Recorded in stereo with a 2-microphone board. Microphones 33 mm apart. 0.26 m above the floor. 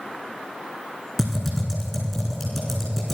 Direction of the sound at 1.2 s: Centre (ahead or behind).